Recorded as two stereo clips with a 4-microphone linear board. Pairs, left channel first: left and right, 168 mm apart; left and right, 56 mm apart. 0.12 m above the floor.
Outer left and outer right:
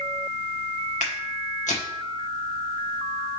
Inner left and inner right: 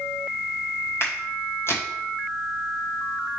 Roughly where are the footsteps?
Left.